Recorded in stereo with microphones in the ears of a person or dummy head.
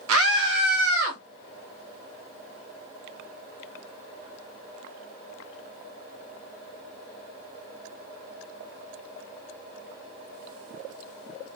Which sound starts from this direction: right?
A scream, at 0.1 s.